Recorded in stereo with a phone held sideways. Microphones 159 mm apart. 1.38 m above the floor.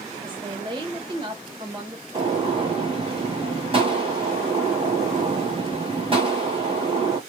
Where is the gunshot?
35° right (ahead or behind), 1.4 m.